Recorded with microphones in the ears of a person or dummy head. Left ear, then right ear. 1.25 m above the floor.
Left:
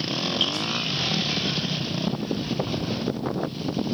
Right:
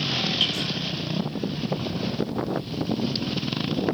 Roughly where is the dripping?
Centre.